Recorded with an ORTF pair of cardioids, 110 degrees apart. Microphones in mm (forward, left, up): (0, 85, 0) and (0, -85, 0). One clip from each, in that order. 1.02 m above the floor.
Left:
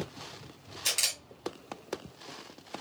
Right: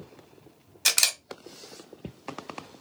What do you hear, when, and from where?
0.8 s a camera shutter: 65° right, 1.1 m